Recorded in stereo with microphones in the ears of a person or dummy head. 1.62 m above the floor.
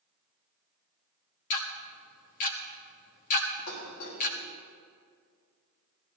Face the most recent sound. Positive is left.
turn(degrees=80)